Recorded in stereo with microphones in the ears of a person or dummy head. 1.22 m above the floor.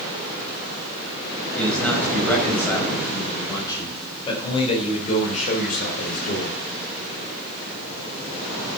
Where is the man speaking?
10° left (ahead or behind), 6 m; by 6.5 s 65° left (ahead or behind), 4 m.